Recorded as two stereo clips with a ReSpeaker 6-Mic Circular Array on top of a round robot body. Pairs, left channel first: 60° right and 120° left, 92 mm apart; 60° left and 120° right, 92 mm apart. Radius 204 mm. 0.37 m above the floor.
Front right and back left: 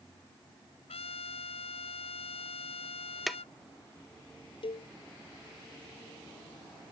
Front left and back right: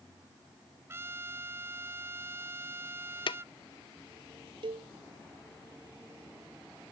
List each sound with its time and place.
0.9 s a trumpet: 55° right
3.3 s a drawer: 30° left
4.6 s a cowbell: 85° right